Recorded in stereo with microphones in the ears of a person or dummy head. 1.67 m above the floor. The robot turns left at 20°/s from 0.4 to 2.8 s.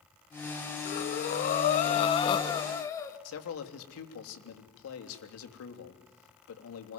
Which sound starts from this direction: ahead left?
Breathing, at 0.8 s.